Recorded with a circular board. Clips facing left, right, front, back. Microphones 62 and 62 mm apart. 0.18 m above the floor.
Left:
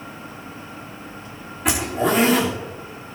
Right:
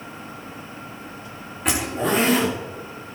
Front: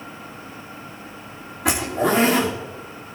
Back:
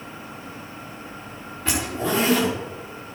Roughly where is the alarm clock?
I don't hear an alarm clock.